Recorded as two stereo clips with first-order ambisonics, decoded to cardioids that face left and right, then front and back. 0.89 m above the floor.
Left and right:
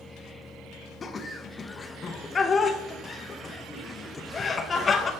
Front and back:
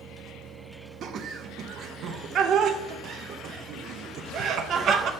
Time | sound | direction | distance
1.0 | laughter | 155° left | 0.5 m